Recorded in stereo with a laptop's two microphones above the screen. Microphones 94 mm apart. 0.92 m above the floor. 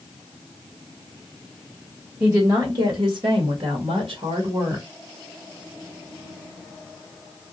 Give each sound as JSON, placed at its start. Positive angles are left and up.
{"t": 2.2, "sound": "a woman speaking", "side_deg": -30, "distance_m": 1.2}